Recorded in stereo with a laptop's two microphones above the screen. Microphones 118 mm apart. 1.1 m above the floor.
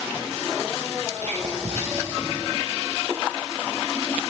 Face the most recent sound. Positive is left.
turn(degrees=-65)  # may be behind; listen again after turning